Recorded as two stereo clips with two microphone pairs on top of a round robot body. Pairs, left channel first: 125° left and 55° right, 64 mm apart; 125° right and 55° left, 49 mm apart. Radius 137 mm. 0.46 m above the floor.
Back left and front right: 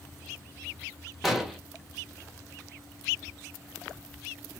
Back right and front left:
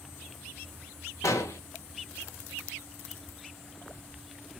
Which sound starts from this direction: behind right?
An explosion, at 1.2 s.